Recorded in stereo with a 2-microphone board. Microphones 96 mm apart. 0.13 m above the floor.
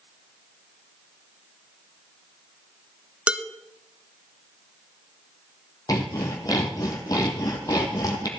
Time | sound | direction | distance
3.3 | dishes clattering | 10° right (ahead or behind) | 0.7 m
5.9 | sawing | 40° left (ahead or behind) | 1.9 m